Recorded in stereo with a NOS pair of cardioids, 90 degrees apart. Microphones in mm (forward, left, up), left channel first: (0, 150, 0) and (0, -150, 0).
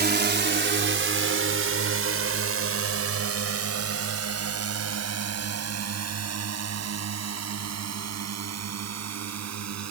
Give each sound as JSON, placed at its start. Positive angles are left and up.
{"t": 0.0, "sound": "a drone", "azimuth_deg": -30}